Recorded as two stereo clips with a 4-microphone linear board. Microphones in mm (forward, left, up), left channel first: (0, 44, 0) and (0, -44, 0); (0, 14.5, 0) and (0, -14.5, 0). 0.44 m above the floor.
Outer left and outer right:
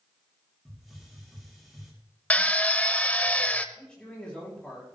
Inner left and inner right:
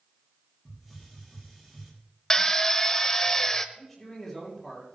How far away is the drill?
About 0.8 m.